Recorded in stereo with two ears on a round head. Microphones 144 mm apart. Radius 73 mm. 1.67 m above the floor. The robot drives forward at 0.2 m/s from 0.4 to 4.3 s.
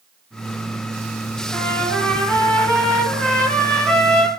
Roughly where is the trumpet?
Centre.